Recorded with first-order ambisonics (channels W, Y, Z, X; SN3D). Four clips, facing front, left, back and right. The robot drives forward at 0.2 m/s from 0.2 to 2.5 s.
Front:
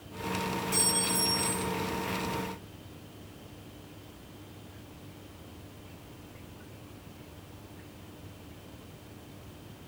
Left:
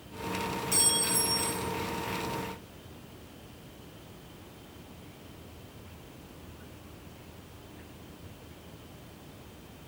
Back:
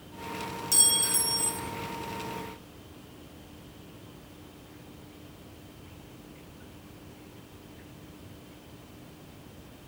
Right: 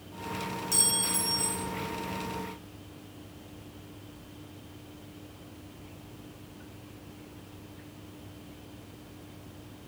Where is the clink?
170° right, 0.5 m; by 1.6 s 175° right, 0.7 m.